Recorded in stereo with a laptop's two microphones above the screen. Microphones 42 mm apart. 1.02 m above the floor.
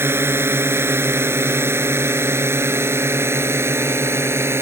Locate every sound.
0.0 s a drone: 70° right (ahead or behind); by 4.6 s 90° right